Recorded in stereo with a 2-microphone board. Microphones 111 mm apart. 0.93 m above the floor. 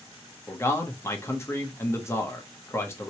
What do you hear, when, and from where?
0.5 s a man speaking: 25° left (ahead or behind), 1.0 m